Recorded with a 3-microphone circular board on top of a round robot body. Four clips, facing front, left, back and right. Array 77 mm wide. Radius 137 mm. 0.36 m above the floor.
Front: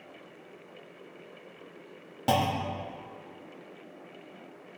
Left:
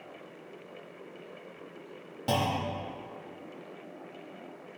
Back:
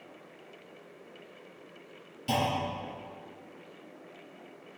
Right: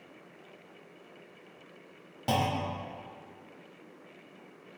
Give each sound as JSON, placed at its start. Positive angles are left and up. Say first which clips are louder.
{"t": 2.3, "sound": "a clunk", "louder": "even, front 3 dB", "azimuth_deg": -15, "distance_m": 0.8}